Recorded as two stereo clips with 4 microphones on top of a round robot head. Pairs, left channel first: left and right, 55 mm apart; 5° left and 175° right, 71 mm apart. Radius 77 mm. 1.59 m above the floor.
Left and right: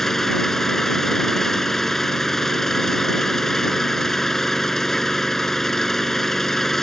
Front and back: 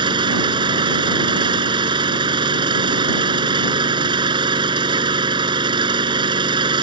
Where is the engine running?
175° left.